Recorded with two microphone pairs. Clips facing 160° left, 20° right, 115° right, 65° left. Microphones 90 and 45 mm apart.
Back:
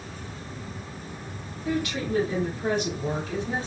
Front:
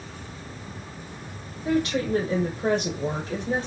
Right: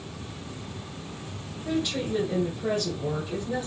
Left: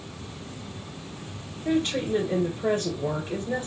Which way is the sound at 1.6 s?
25° left.